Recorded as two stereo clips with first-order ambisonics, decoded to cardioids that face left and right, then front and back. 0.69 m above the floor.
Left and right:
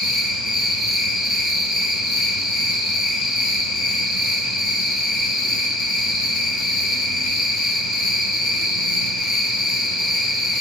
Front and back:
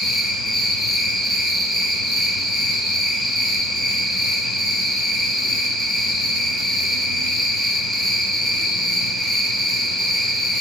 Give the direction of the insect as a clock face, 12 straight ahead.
8 o'clock.